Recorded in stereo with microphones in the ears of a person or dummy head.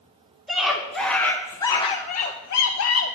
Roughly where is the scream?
Centre.